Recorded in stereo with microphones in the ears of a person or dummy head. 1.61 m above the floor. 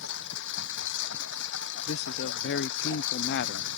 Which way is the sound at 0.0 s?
70° left (ahead or behind).